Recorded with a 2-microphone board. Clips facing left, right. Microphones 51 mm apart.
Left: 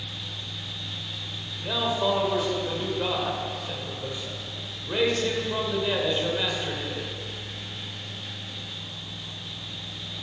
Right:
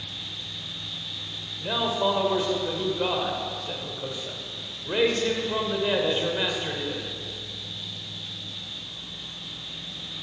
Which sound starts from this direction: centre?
A man speaking, at 1.6 s.